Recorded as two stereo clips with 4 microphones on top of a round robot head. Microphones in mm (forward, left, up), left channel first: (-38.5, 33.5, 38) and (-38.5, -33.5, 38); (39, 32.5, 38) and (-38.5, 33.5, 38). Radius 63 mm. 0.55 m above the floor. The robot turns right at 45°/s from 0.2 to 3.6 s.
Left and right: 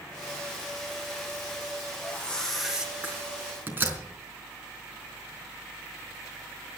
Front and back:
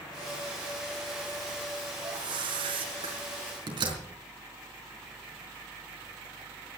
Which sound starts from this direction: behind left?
A whoosh, at 2.0 s.